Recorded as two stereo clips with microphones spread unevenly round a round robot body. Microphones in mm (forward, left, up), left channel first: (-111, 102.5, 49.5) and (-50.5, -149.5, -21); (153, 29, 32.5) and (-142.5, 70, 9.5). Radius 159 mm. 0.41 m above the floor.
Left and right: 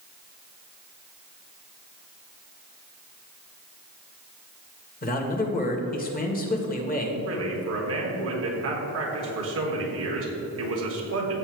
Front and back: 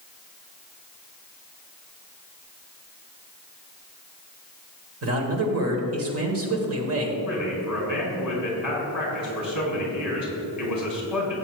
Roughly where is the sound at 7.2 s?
Right.